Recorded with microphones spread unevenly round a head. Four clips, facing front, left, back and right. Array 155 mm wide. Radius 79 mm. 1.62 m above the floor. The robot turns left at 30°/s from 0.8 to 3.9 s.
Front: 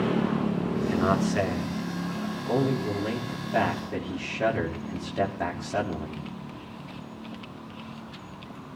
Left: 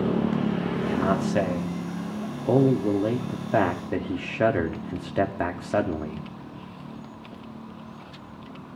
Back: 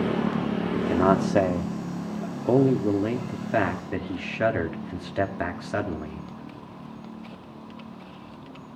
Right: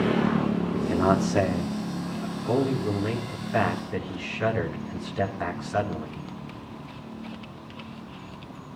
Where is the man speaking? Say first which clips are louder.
Right 3 dB, back 5 dB; 160° right, 3 m; by 6.3 s 110° left, 3 m.